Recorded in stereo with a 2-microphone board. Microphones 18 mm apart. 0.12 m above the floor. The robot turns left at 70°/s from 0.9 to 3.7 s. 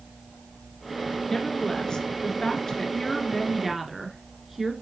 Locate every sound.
1.3 s a woman speaking: 155° left, 1.6 m; by 4.7 s 15° right, 1.6 m